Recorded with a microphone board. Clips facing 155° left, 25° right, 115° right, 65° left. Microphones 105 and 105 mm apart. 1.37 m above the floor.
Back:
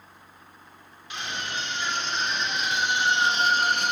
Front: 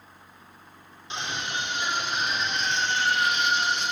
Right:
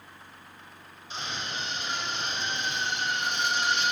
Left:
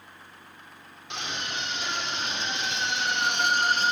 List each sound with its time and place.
1.1 s a scream: 45° left, 3.5 m; by 3.9 s 125° left, 1.7 m